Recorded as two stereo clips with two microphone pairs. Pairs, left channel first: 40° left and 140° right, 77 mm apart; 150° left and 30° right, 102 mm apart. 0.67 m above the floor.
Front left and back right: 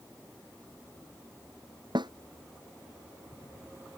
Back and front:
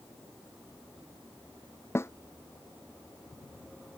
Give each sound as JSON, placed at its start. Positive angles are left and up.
{"t": 1.9, "sound": "a snare drum", "azimuth_deg": -145}